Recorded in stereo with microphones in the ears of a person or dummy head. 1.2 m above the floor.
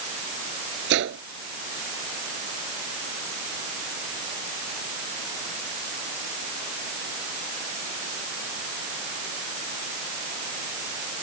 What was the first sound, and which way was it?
A gunshot, 60° right (ahead or behind).